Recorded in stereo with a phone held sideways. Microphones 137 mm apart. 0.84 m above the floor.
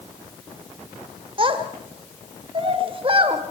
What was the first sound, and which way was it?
A child speaking, 40° right (ahead or behind).